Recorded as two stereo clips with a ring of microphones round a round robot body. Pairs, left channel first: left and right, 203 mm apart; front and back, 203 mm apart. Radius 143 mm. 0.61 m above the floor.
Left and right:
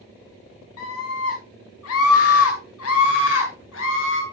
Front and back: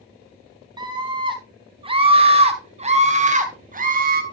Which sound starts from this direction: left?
A scream, at 0.8 s.